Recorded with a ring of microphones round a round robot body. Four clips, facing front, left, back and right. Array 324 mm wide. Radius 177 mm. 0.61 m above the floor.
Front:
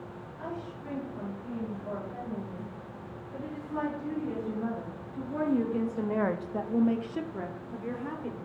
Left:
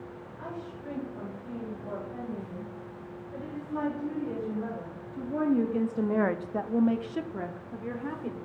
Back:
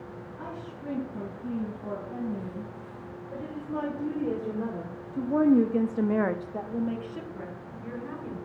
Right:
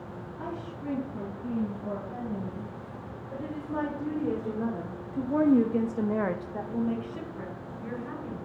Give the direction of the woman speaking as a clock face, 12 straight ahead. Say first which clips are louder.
Right 2 dB, front 2 dB; 4 o'clock.